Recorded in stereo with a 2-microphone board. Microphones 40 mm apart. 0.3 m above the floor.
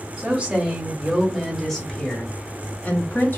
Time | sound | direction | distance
0.2 | a woman speaking | 35° right (ahead or behind) | 1.4 m